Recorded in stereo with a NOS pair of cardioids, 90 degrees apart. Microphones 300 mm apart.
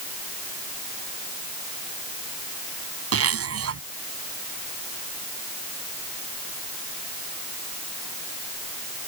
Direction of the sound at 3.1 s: 50° right.